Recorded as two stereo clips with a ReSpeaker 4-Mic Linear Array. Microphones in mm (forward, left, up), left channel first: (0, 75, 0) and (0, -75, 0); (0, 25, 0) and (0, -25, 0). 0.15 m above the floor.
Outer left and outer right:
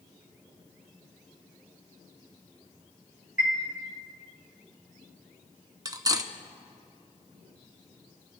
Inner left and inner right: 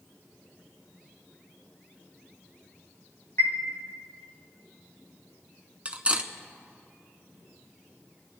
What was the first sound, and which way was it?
A chime, 60° left (ahead or behind).